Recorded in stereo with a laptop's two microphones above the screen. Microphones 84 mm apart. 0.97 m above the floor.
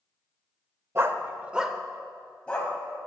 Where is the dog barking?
35° right (ahead or behind), 0.8 m; by 2.7 s 15° left (ahead or behind), 1.8 m.